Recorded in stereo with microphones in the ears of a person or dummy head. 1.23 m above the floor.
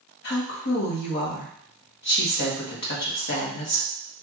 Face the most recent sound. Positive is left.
turn(degrees=55)  # may be behind; listen again after turning